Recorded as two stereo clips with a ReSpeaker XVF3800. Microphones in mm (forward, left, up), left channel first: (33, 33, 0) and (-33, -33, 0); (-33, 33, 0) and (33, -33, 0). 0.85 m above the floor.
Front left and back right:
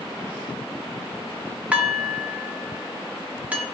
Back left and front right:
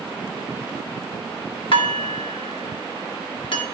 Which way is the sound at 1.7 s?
150° left.